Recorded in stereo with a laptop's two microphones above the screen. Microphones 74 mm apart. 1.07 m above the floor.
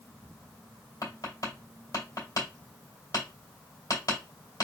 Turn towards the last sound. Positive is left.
turn(degrees=55)  # may be behind; listen again after turning